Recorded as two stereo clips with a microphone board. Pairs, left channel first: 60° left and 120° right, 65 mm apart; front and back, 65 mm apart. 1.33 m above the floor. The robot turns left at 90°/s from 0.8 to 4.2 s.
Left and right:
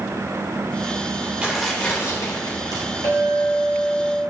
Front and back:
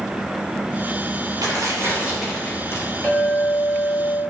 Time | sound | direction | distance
1.4 | tearing paper | 165° left | 3 m
3.0 | a clink | 70° left | 3.5 m